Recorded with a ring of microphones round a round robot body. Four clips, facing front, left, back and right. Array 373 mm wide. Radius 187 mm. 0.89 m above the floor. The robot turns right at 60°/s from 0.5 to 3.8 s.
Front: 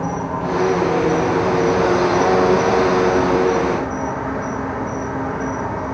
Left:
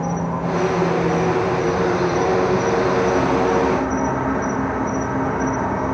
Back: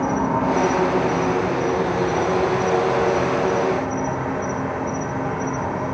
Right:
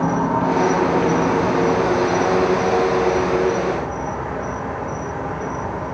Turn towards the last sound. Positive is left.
turn(degrees=75)